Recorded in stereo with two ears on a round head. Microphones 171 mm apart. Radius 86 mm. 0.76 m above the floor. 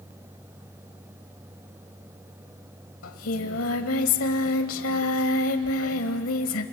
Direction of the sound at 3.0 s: 80° left.